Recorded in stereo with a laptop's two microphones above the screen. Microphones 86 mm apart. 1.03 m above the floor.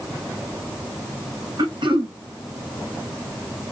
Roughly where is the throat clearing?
Right.